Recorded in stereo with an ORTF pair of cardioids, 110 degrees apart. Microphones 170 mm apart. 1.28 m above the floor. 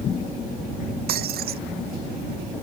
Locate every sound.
1.1 s breaking glass: 65° right